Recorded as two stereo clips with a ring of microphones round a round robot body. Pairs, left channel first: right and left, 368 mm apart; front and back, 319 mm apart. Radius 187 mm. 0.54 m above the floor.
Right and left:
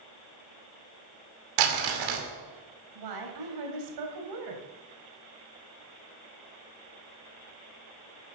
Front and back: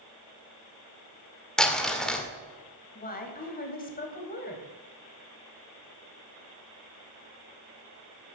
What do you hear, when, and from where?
1.6 s crumpling: 90° left, 2 m
3.0 s a woman speaking: 60° left, 3 m